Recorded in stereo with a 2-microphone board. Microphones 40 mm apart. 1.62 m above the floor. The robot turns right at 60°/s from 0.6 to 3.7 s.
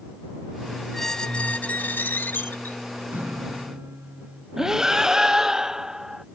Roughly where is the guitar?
Right.